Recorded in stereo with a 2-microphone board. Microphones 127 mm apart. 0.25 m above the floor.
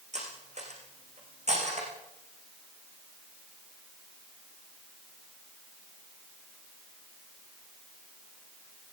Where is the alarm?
No alarm in this recording.